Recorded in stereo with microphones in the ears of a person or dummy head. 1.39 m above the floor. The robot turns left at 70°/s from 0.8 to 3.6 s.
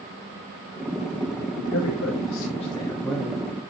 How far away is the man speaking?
About 2.0 m.